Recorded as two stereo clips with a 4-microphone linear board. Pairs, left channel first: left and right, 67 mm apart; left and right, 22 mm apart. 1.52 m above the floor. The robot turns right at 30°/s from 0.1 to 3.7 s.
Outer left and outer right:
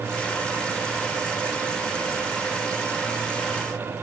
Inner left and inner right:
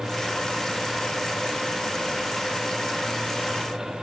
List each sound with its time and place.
Only background noise.